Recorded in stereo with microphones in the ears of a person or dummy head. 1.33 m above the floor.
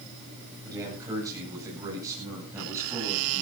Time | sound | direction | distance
0.6 | a man speaking | 20° right (ahead or behind) | 9.5 m